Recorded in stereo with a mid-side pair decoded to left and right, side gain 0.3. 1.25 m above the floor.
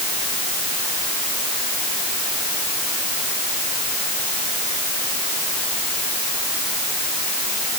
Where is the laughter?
I don't hear laughter.